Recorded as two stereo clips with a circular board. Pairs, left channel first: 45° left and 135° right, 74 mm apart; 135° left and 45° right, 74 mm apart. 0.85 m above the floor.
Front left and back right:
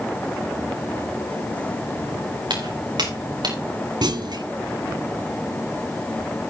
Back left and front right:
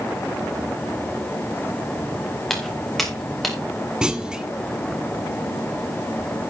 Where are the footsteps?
140° right, 4.5 m; by 3.6 s 135° right, 5 m.